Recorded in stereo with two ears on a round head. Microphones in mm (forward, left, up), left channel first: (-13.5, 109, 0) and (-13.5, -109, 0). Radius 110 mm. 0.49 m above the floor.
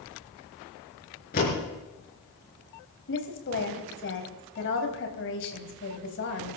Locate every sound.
1.3 s a door slam: 35° left (ahead or behind), 5.5 m
3.1 s a woman speaking: 50° left (ahead or behind), 3 m